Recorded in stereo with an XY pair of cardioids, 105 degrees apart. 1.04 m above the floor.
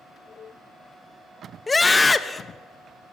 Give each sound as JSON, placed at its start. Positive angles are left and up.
{"t": 1.7, "sound": "a scream", "azimuth_deg": 25, "distance_m": 0.8}